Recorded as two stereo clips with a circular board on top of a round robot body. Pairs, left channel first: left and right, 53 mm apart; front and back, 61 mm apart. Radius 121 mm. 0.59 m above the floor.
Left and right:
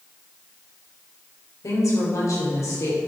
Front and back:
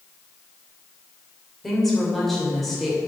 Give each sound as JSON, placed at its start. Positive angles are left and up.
{"t": 1.6, "sound": "a woman speaking", "azimuth_deg": 90, "distance_m": 3.5}